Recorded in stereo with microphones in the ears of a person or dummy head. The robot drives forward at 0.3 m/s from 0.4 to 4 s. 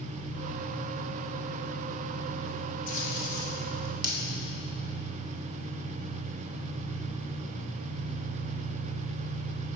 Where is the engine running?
65° left (ahead or behind), 1.9 m; by 9.8 s 70° left (ahead or behind), 1.9 m.